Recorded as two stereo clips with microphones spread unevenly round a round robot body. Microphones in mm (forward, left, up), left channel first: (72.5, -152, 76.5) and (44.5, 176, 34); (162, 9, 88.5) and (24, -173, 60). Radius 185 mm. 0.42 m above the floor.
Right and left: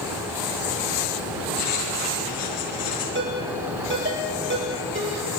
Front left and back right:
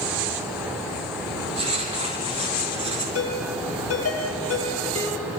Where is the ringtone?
40° left, 9.5 m.